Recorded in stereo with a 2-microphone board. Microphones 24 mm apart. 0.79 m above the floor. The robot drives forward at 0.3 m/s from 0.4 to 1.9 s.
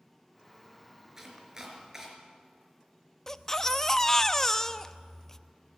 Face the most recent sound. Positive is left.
turn(degrees=20)  # may be behind; listen again after turning